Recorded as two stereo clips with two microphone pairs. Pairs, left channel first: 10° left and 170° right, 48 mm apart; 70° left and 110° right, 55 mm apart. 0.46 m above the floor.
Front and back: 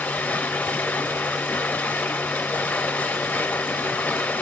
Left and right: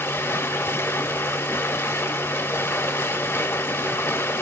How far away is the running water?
About 0.7 m.